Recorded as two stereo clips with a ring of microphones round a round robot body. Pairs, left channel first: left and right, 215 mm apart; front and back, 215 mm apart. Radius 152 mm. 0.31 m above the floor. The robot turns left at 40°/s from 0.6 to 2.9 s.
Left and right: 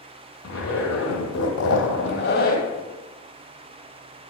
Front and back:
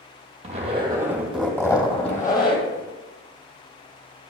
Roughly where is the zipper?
Behind left.